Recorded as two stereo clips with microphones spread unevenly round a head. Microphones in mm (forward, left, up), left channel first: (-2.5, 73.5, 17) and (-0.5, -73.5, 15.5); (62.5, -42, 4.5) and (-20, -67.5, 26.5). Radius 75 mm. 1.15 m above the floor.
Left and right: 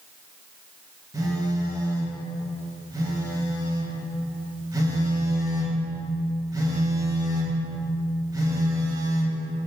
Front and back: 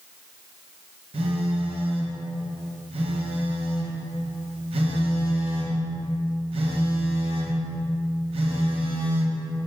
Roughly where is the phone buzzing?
Behind right.